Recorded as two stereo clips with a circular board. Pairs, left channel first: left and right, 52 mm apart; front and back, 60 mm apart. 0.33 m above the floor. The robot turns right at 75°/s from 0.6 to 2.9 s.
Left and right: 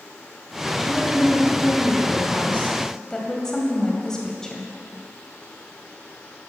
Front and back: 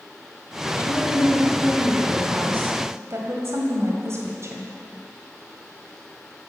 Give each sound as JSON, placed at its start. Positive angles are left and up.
{"t": 0.8, "sound": "a woman speaking", "azimuth_deg": 5, "distance_m": 1.9}